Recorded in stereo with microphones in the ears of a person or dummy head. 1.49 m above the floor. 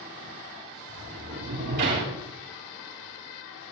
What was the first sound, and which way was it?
A sliding door, 60° right (ahead or behind).